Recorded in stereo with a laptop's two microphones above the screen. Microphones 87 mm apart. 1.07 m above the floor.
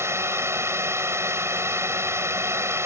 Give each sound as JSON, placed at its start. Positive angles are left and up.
{"t": 0.0, "sound": "a drone", "side_deg": -30}